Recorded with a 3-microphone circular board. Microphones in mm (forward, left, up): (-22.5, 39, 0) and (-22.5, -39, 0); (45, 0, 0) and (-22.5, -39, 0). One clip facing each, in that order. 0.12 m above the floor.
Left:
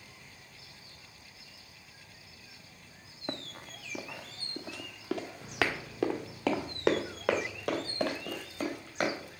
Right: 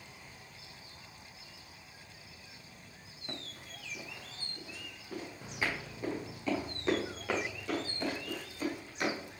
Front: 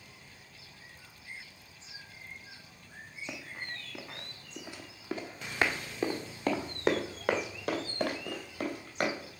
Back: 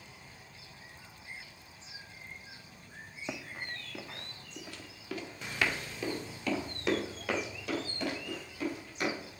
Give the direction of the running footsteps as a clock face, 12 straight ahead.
7 o'clock.